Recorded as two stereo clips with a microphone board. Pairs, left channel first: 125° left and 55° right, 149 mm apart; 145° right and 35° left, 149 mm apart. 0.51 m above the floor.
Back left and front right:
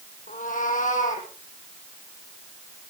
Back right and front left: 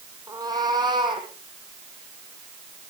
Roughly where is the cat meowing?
Left.